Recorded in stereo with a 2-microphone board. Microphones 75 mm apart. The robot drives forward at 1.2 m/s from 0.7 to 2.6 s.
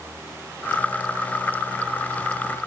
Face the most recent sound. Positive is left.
No sound to turn to.